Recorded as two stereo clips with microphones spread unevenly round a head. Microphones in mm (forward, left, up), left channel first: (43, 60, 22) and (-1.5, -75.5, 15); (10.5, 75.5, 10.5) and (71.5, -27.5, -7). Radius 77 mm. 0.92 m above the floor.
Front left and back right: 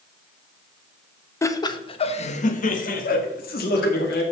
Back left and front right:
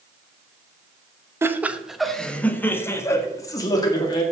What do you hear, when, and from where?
1.4 s laughter: 5° left, 1.1 m; by 4.2 s 65° left, 2.5 m